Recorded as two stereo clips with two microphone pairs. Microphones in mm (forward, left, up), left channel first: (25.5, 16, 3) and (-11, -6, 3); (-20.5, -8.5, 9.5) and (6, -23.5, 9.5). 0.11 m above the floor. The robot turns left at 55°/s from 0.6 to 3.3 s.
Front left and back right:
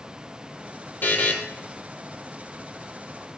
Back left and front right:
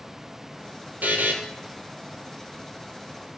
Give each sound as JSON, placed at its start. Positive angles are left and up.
{"t": 1.0, "sound": "a buzzer", "azimuth_deg": -10, "distance_m": 0.5}